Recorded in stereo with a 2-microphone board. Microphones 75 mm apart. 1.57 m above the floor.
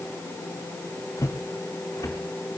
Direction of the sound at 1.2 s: 45° left (ahead or behind).